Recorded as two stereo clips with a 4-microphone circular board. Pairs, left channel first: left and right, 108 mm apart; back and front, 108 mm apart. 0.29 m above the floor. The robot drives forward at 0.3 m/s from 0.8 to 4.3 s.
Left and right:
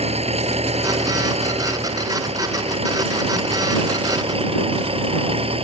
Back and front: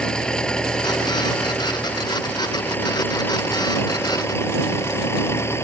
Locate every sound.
0.0 s an engine running: 100° right; by 5.6 s 115° right